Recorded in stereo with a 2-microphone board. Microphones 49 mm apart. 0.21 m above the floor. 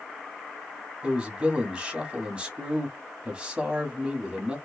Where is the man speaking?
20° right (ahead or behind), 1.3 m.